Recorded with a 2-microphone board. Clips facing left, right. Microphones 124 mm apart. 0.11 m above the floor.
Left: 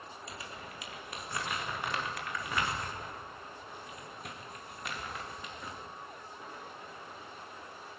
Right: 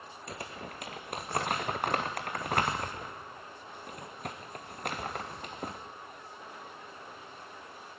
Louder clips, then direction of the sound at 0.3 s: Right 7 dB; 50° right (ahead or behind).